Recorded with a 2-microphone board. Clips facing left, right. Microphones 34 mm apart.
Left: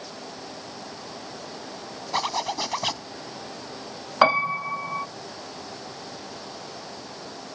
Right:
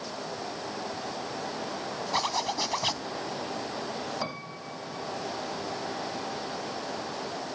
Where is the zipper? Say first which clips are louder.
Left 3 dB; 10° left (ahead or behind).